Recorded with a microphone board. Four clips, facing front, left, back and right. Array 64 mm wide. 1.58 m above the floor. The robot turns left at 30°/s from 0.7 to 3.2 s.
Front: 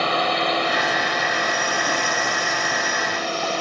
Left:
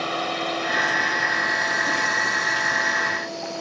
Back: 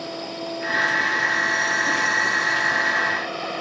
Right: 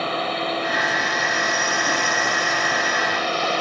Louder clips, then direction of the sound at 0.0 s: Right 2 dB, front 10 dB; straight ahead.